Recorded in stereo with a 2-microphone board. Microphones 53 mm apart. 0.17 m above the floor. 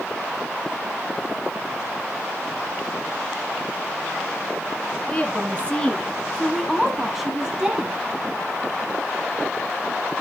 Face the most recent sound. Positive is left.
turn(degrees=-20)  # may be behind; listen again after turning